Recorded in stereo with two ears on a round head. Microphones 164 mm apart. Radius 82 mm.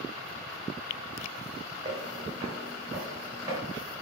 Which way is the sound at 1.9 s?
25° right (ahead or behind).